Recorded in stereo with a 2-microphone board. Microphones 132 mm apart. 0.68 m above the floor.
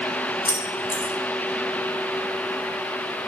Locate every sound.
0.5 s keys jangling: 20° left (ahead or behind), 3 m